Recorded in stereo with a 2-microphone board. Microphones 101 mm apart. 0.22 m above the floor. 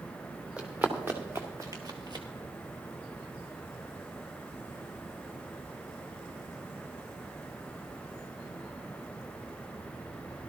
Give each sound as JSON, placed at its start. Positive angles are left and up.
{"t": 0.6, "sound": "running footsteps", "side_deg": -15, "distance_m": 1.9}